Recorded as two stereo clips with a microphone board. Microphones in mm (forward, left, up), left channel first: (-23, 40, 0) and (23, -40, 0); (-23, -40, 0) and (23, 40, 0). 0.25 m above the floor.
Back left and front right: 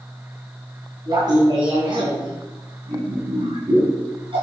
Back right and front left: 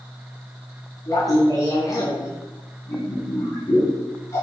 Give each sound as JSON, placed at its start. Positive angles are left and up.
{"t": 1.1, "sound": "laughter", "azimuth_deg": -80, "distance_m": 2.0}